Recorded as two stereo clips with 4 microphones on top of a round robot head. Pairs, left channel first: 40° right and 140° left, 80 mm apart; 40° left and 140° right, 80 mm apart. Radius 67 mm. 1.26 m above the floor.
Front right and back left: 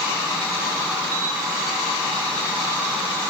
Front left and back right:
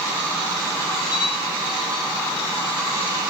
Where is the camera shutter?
85° left, 8.5 m.